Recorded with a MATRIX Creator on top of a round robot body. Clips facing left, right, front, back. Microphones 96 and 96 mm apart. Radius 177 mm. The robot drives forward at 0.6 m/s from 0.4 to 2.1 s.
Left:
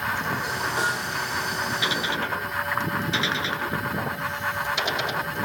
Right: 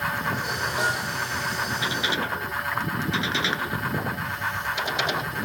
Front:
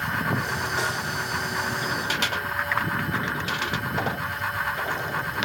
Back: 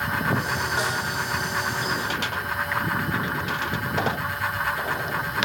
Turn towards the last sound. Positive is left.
turn(degrees=120)